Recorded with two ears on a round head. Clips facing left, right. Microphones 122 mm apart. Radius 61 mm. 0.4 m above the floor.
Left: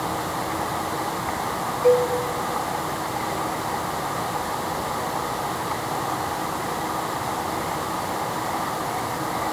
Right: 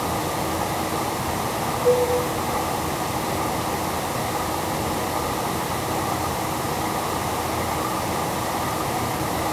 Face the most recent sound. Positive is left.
turn(degrees=70)  # may be behind; listen again after turning